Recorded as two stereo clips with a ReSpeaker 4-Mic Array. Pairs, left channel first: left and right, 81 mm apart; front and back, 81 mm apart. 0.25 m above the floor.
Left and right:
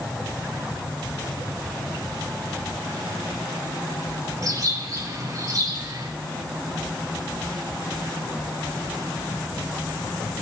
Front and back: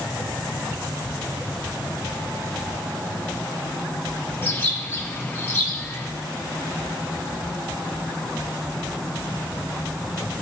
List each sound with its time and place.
4.4 s a bird: 60° right, 1.9 m